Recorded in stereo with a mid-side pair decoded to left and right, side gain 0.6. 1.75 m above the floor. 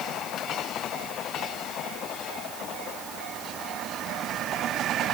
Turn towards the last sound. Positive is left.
No sound to turn to.